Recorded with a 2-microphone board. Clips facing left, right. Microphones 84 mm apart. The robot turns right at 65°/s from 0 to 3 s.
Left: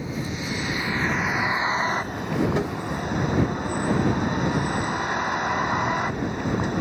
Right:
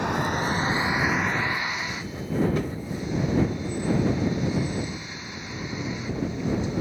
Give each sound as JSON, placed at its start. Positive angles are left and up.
{"t": 0.0, "sound": "a vehicle", "azimuth_deg": -75}
{"t": 2.5, "sound": "tapping", "side_deg": 40}